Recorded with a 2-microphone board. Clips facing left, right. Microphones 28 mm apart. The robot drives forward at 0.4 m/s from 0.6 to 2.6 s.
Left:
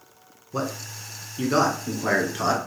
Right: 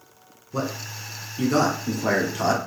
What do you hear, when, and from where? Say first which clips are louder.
0.5 s a man speaking: right 1 dB; 10° left (ahead or behind), 1.2 m; by 2.6 s 5° left (ahead or behind), 1.7 m